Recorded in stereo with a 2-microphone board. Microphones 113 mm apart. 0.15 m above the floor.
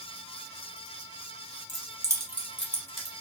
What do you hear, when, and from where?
1.7 s keys jangling: 40° right (ahead or behind), 1.1 m; by 3.1 s 30° left (ahead or behind), 1.1 m